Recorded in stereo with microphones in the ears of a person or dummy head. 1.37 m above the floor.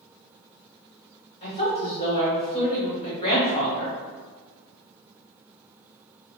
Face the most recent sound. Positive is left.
turn(degrees=30)  # may be behind; listen again after turning